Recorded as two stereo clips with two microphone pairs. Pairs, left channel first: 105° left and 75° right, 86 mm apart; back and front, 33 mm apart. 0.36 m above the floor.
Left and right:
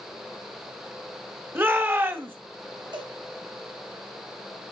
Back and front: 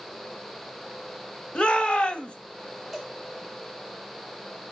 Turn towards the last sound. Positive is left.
turn(degrees=-100)